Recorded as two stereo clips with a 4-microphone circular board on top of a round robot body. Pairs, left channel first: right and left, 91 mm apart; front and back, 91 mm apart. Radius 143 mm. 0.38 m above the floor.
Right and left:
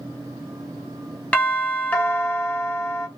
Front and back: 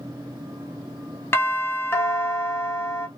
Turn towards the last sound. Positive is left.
turn(degrees=-30)